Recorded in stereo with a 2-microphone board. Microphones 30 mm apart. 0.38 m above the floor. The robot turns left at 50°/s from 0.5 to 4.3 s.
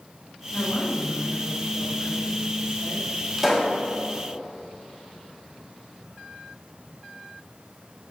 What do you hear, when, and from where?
0.5 s a woman speaking: 60° left, 4.5 m; by 3.1 s 70° right, 4.5 m
3.4 s a pop: 5° right (ahead or behind), 2.5 m; by 3.8 s 25° right (ahead or behind), 2.5 m